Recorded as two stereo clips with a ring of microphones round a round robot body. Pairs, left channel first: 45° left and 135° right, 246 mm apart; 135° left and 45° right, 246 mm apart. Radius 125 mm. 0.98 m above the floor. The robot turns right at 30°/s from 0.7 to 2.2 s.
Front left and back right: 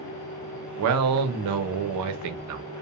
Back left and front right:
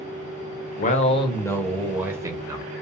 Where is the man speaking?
165° right, 0.6 m; by 2.6 s 125° right, 0.6 m.